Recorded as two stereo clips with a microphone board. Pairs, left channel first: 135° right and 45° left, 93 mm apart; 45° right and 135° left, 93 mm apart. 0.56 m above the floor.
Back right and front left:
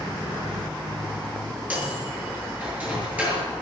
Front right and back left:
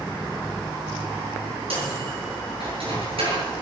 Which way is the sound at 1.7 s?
120° left.